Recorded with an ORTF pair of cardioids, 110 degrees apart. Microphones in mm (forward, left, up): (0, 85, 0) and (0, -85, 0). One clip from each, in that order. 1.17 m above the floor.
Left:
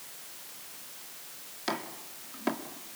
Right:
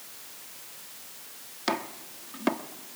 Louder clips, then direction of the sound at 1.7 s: Right 4 dB; 25° right.